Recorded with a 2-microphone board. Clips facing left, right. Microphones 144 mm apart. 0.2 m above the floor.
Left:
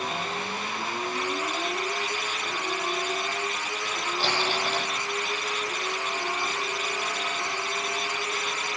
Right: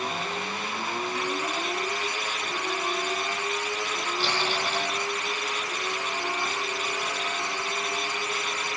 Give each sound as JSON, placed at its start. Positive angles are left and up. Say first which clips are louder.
{"t": 4.2, "sound": "crumpling", "louder": "left 2 dB", "side_deg": 40, "distance_m": 7.0}